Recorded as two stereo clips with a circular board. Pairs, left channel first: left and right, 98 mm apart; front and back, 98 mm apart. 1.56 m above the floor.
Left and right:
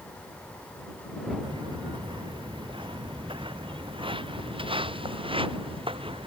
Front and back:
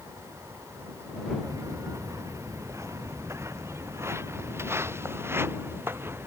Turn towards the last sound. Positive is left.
turn(degrees=-115)